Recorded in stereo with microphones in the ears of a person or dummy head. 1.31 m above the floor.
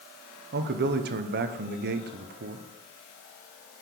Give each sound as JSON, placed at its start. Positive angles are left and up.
{"t": 0.5, "sound": "a man speaking", "side_deg": -50, "distance_m": 0.7}